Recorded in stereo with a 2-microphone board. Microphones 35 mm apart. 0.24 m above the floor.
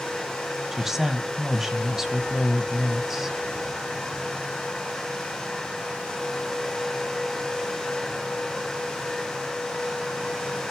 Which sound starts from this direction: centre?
A woman speaking, at 0.7 s.